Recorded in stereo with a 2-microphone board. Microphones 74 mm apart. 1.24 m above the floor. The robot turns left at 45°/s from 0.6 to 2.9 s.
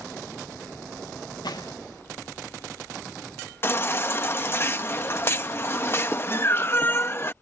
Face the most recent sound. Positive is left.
turn(degrees=30)  # may be behind; listen again after turning